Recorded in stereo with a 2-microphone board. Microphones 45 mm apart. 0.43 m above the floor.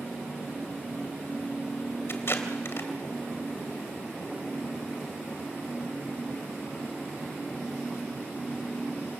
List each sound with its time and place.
2.1 s tape being pulled: 55° left (ahead or behind), 2.5 m